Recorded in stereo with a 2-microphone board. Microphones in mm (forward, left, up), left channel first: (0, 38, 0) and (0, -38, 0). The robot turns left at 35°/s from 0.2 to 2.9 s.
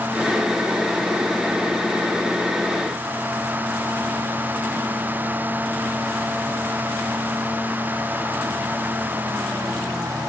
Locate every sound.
Only background noise.